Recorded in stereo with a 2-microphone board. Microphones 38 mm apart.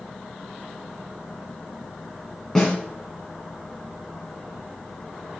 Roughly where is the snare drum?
Centre.